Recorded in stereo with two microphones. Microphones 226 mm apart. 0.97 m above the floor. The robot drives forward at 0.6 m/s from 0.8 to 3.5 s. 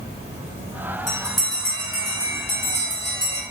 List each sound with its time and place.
0.0 s an insect: 25° right (ahead or behind), 1.6 m; by 3.5 s 15° right (ahead or behind), 3 m
1.1 s a bell: 50° left (ahead or behind), 2 m; by 3.4 s 85° left, 1.7 m